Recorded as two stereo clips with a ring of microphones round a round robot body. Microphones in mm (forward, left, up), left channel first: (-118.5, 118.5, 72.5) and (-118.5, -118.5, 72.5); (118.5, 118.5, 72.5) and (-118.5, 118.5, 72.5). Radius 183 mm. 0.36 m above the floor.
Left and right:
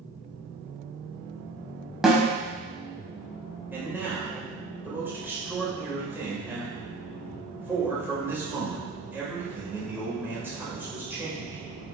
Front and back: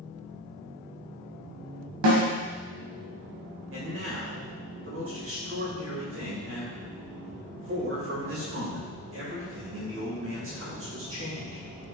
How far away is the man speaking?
About 2.0 m.